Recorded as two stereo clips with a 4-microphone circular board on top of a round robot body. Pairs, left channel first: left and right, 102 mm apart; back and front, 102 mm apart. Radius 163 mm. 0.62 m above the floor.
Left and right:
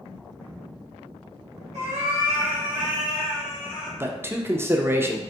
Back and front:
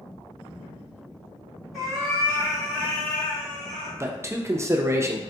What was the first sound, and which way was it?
A cat meowing, 90° right.